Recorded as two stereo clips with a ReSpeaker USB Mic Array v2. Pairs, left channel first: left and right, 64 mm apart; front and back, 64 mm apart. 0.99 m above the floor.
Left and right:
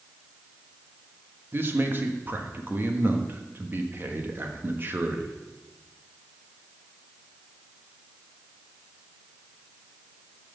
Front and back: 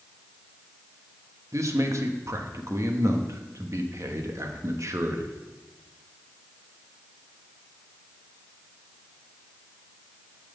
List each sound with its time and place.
1.5 s a man speaking: 145° right, 1.1 m